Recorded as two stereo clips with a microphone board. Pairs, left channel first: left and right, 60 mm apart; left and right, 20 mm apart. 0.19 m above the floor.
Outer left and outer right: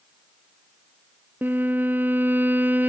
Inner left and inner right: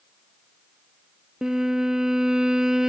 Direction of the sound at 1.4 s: 35° right (ahead or behind).